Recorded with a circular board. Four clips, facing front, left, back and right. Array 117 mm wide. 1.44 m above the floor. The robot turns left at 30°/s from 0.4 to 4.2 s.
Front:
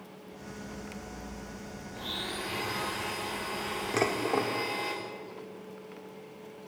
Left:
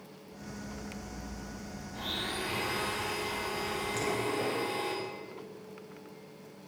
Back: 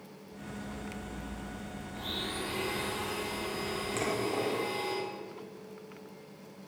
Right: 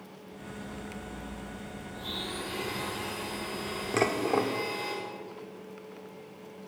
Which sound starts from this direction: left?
A blender, at 1.9 s.